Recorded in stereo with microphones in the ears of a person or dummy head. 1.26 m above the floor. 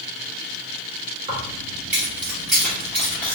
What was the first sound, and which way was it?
Keys jangling, 20° right (ahead or behind).